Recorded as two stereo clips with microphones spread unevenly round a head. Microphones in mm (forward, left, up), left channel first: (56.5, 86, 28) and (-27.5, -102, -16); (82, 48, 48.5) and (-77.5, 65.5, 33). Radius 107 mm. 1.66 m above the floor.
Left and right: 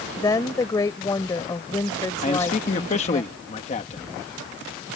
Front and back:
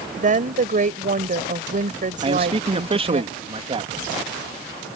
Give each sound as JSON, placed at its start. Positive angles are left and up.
{"t": 0.2, "sound": "a woman speaking", "azimuth_deg": 140}
{"t": 2.2, "sound": "a man speaking", "azimuth_deg": 120}